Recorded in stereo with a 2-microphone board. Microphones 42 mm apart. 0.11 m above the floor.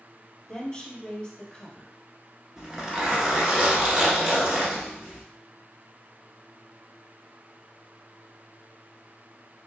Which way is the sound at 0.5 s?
25° left (ahead or behind).